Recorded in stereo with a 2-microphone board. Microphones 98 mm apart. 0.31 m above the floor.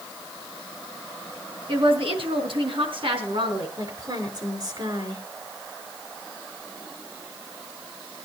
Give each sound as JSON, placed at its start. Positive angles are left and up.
{"t": 1.7, "sound": "a woman speaking", "side_deg": -60, "distance_m": 4.0}
{"t": 3.8, "sound": "a woman speaking", "side_deg": -45, "distance_m": 5.0}